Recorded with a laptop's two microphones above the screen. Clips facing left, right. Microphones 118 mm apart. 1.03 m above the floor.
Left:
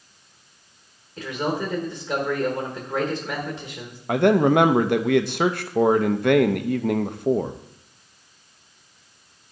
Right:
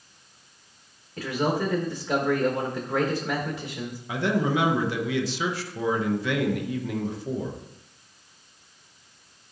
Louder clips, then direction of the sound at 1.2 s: Even; 10° right (ahead or behind).